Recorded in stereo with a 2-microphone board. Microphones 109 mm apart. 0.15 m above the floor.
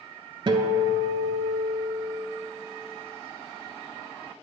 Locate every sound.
0.5 s a guitar: 45° right (ahead or behind), 0.5 m